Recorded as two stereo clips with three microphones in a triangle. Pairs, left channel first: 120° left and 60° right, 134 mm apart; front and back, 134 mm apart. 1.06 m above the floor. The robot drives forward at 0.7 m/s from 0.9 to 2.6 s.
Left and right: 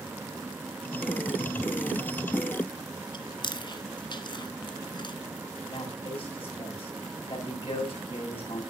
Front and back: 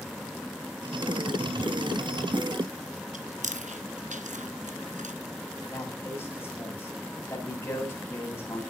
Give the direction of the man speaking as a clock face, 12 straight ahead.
10 o'clock.